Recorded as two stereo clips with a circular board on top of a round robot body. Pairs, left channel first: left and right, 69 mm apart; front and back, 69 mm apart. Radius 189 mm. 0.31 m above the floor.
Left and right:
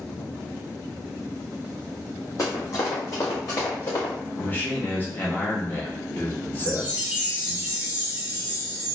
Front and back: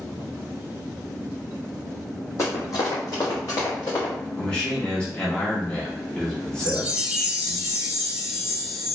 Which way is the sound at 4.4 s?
65° left.